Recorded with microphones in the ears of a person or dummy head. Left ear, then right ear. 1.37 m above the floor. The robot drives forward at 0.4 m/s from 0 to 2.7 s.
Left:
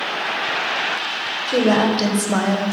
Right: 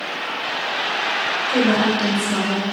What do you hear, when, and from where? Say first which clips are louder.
1.5 s a woman speaking: left 3 dB; 50° left (ahead or behind), 0.6 m; by 2.7 s 60° left (ahead or behind), 0.5 m